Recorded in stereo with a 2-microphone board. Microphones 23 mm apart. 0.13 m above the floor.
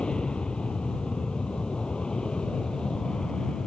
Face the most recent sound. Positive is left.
turn(degrees=35)  # may be behind; listen again after turning